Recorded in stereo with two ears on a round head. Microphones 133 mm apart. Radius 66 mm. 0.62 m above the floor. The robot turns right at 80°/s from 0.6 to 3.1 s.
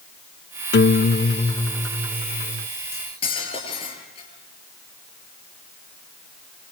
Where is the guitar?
90° left, 0.5 m; by 2.7 s 115° right, 0.5 m.